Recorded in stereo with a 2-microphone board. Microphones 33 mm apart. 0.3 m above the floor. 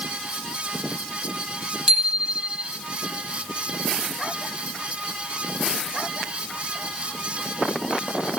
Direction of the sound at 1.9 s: 5° right (ahead or behind).